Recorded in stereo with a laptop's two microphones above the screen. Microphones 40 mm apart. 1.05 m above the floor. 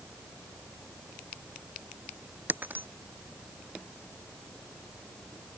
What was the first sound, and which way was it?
Breaking glass, 45° right (ahead or behind).